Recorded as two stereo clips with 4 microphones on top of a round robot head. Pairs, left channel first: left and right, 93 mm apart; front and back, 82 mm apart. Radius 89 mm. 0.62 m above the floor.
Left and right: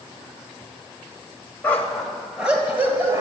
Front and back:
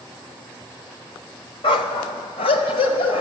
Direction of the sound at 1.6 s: 15° left.